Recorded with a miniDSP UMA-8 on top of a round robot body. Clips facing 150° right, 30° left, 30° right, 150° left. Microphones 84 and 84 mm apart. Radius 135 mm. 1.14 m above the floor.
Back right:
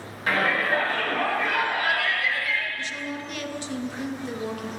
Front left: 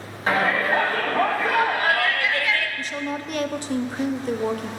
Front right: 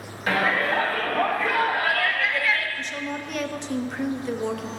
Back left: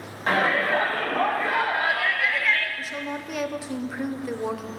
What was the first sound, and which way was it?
A shout, 95° left.